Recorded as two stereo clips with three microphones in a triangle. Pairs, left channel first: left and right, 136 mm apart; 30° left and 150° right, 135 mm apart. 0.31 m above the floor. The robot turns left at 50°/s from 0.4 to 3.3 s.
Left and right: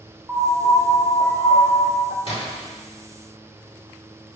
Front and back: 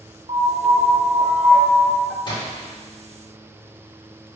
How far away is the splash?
About 2 m.